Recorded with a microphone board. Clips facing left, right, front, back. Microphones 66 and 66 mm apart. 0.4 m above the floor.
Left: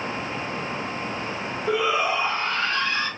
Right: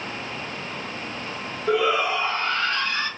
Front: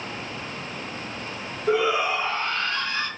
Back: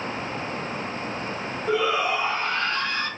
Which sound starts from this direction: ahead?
A shout, at 1.7 s.